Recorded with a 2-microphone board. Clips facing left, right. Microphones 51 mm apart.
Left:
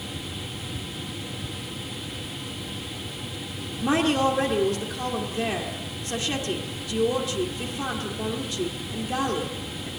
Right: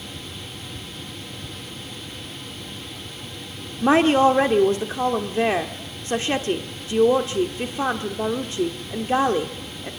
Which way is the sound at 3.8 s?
40° right (ahead or behind).